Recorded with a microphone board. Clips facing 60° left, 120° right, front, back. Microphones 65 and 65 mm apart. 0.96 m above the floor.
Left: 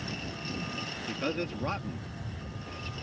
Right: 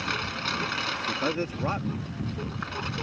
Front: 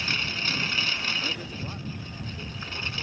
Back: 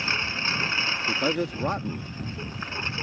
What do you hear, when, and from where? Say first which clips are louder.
0.0 s a lawn mower: right 8 dB, back 2 dB; 115° right
1.1 s a man speaking: right 2 dB, back 6 dB; 165° left